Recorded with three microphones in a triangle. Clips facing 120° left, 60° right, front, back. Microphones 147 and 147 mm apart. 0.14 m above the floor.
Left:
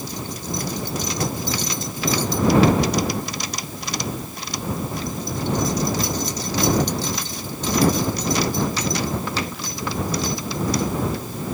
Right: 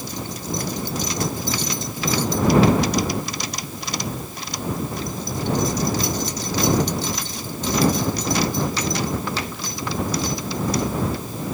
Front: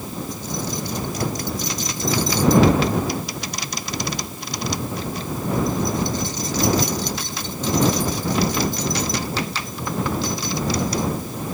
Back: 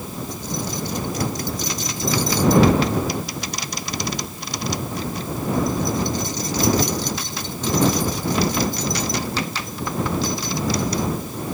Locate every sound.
Only background noise.